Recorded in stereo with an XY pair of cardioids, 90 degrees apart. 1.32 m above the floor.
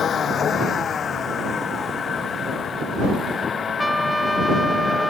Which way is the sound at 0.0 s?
60° left.